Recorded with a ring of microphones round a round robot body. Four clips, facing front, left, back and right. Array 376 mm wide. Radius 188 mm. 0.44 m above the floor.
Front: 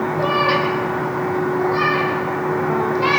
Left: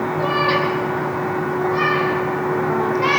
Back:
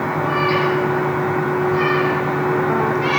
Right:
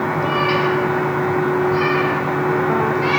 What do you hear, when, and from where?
0.2 s a cat meowing: 5° left, 3 m; by 3.2 s 40° left, 5.5 m